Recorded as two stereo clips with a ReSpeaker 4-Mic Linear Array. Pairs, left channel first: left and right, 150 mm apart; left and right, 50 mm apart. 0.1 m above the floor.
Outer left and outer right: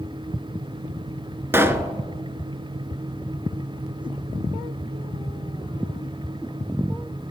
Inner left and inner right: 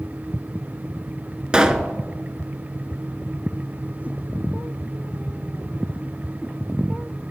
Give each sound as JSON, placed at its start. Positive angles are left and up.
{"t": 1.5, "sound": "a pop", "side_deg": -15, "distance_m": 0.5}